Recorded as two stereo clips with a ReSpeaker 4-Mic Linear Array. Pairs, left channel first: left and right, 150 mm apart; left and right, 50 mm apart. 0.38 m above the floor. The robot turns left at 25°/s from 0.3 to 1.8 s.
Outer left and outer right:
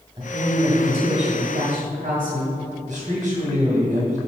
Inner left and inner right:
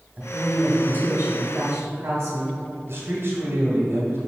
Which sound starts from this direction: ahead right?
A woman speaking, at 0.2 s.